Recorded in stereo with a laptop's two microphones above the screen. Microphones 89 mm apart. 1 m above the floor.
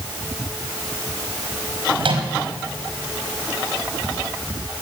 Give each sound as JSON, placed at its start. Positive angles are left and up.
{"t": 2.0, "sound": "a microwave", "side_deg": -70, "distance_m": 5.0}